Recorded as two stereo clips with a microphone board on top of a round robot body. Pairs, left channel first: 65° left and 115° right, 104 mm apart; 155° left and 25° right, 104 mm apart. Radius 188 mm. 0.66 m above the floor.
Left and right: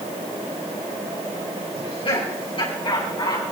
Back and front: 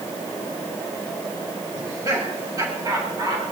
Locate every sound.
1.7 s laughter: 35° left, 5.5 m; by 3.4 s 30° left, 7.5 m